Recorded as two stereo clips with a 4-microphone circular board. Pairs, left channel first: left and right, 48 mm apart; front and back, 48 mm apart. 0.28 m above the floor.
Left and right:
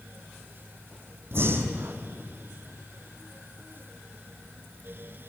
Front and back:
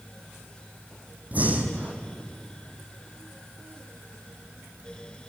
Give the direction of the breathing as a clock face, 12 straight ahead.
4 o'clock.